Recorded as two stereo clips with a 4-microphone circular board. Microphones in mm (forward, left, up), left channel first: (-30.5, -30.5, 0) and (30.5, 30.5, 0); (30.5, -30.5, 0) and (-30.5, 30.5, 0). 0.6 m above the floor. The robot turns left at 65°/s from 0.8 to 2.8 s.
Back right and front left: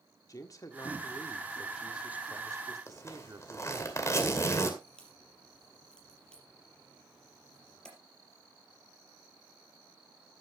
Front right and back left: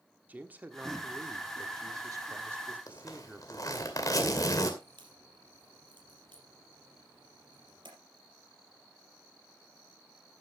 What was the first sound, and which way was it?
A man speaking, 160° right.